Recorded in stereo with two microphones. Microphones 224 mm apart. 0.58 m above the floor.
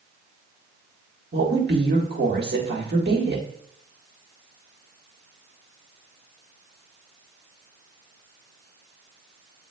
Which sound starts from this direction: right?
A woman speaking, at 1.3 s.